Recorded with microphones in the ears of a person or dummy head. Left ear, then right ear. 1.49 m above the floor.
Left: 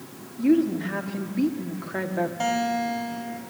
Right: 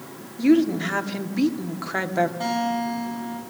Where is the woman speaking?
25° right (ahead or behind), 1.3 m.